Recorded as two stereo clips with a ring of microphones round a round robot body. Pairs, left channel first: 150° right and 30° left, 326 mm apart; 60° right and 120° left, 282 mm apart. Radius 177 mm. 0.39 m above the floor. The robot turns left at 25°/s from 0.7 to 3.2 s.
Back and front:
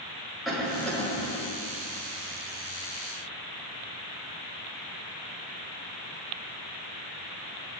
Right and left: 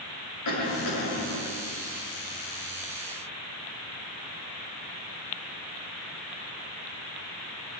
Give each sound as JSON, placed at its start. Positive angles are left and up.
{"t": 0.5, "sound": "a cough", "azimuth_deg": -60, "distance_m": 6.5}